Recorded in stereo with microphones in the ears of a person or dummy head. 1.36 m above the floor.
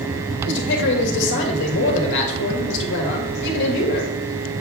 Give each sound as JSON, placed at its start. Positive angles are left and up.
{"t": 0.5, "sound": "a man speaking", "side_deg": 65, "distance_m": 2.0}